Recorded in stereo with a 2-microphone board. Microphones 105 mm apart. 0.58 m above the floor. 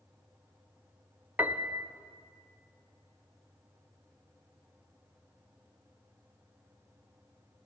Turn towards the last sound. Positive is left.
turn(degrees=-15)  # may be behind; listen again after turning